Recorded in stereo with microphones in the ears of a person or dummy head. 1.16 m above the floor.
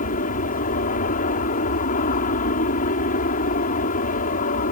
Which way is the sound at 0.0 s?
40° left (ahead or behind).